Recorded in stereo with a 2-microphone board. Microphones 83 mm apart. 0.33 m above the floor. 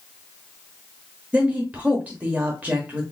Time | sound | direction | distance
1.3 | a woman speaking | 20° right (ahead or behind) | 0.9 m